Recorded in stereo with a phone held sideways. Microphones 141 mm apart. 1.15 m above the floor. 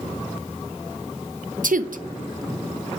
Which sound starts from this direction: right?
A woman speaking, at 1.6 s.